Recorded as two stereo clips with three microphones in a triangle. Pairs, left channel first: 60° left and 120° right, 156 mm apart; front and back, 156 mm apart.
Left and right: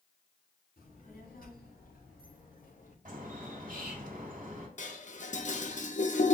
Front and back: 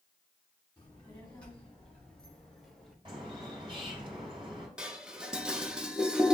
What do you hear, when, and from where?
0.8 s a child speaking: 80° left, 2.5 m; by 3.0 s 90° left, 1.2 m
3.0 s a bird: 130° right, 1.7 m
4.8 s dishes clattering: 95° left, 0.6 m